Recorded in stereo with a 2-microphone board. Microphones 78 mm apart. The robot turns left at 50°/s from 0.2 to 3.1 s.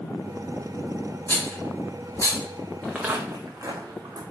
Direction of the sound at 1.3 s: 30° left (ahead or behind).